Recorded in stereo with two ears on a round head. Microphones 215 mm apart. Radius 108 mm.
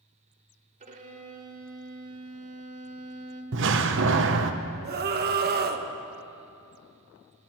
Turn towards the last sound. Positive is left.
turn(degrees=-45)  # may be behind; listen again after turning